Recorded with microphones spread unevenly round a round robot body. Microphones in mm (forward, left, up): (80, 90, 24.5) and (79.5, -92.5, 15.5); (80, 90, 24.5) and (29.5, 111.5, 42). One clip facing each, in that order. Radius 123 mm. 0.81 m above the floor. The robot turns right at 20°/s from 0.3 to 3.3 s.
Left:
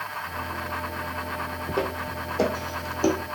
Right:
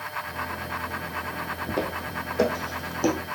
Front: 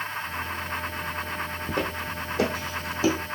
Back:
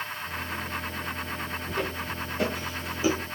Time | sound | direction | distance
1.7 | footsteps | 10° right | 1.6 m